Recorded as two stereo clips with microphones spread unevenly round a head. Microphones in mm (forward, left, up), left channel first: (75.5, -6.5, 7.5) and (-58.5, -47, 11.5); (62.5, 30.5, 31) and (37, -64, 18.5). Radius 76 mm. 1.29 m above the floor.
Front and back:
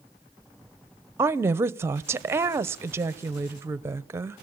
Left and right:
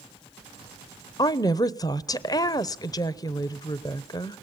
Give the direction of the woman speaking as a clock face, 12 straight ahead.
8 o'clock.